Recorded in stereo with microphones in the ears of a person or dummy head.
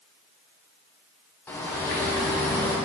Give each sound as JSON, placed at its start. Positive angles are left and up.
{"t": 1.5, "sound": "a bird", "side_deg": 10, "distance_m": 0.6}